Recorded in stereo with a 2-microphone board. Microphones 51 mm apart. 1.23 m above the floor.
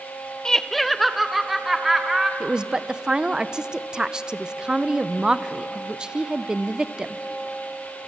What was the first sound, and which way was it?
Laughter, 10° left (ahead or behind).